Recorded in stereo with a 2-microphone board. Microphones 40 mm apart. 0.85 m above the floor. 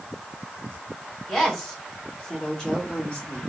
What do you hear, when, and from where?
1.3 s a woman speaking: 5° left (ahead or behind), 2.5 m; by 3.5 s 35° left (ahead or behind), 2.0 m